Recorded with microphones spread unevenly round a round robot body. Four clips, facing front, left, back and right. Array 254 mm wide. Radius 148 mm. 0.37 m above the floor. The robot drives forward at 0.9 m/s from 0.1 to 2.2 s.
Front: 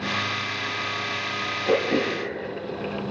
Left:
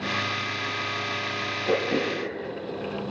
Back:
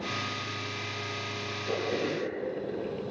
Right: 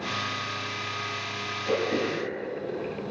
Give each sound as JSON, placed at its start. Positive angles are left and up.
{"t": 1.6, "sound": "throat clearing", "azimuth_deg": 20, "distance_m": 8.0}